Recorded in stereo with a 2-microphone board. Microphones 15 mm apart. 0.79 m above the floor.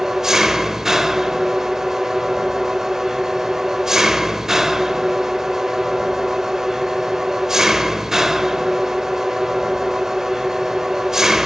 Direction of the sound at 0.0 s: 30° right (ahead or behind).